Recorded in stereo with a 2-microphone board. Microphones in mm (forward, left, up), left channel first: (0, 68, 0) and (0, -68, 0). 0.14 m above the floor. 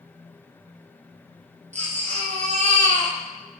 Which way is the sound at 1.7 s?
60° right (ahead or behind).